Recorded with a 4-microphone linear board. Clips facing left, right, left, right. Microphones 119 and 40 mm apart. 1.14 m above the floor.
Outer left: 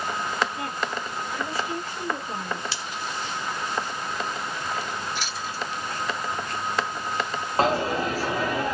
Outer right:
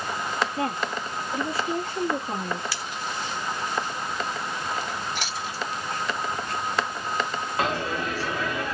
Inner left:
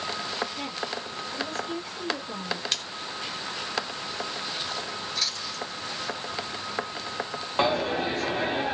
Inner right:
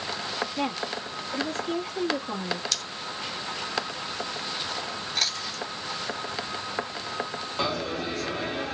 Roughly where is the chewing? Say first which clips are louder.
Even, inner right 2 dB; right.